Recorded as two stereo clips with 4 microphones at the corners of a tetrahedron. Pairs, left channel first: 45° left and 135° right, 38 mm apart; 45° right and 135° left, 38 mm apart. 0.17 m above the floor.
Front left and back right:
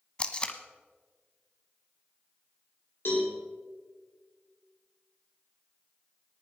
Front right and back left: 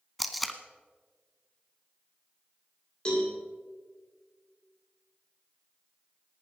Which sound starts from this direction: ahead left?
Tape being pulled, at 0.2 s.